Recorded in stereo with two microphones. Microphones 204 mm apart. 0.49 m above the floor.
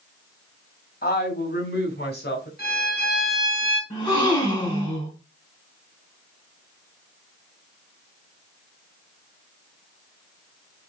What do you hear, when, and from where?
1.0 s a woman speaking: 50° left (ahead or behind), 3 m; by 2.5 s 60° left (ahead or behind), 4 m
2.6 s a violin: 50° left (ahead or behind), 3.5 m
3.9 s a gasp: 20° left (ahead or behind), 4.5 m